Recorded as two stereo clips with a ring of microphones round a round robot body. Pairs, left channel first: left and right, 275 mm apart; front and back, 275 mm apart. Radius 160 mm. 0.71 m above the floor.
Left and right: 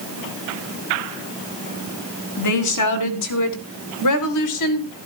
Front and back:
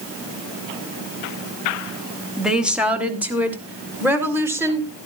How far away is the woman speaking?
About 2.5 m.